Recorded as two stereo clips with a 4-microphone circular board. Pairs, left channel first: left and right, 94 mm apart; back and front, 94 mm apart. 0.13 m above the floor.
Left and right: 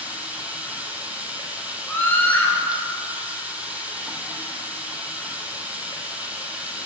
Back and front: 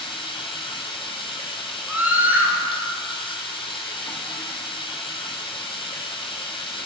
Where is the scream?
50° left, 1.8 m.